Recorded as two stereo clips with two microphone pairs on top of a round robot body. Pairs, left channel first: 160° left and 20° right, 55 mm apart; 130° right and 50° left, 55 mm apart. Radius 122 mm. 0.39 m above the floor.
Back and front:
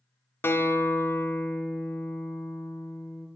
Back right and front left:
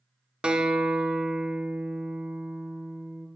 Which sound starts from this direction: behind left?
A guitar, at 0.4 s.